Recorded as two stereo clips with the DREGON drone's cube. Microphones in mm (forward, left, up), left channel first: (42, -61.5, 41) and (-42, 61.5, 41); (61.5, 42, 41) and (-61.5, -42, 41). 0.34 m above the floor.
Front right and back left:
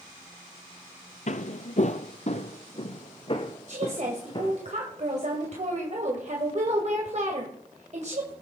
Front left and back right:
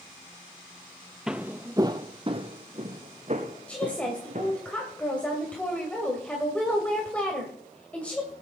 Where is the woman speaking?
115° left, 2 m.